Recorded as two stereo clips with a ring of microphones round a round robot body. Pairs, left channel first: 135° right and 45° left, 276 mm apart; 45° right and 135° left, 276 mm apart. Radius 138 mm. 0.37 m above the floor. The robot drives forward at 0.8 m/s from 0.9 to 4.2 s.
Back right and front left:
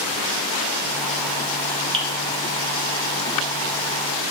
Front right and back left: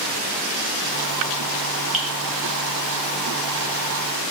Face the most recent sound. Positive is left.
turn(degrees=160)